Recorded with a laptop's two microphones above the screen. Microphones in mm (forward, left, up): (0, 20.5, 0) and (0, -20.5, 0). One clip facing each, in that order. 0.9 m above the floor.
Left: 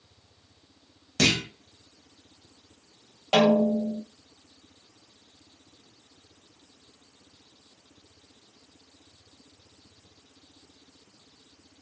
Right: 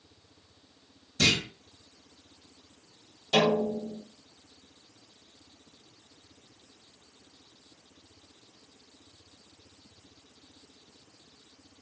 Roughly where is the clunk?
Left.